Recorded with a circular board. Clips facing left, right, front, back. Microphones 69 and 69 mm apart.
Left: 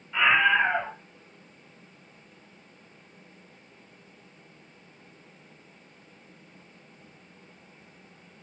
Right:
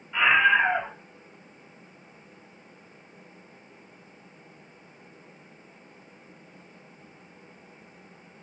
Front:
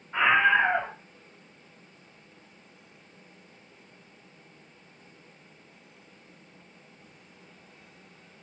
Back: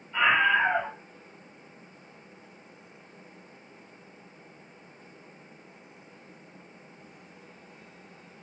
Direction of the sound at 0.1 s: 10° right.